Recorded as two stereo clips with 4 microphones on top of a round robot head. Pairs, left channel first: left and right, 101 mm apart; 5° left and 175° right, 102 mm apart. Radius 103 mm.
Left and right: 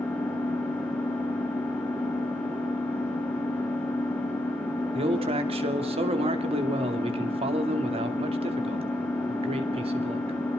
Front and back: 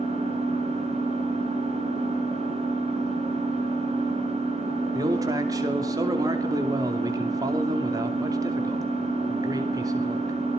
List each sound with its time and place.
0.0 s an engine running: 170° left, 7 m
4.9 s a man speaking: 115° right, 2.5 m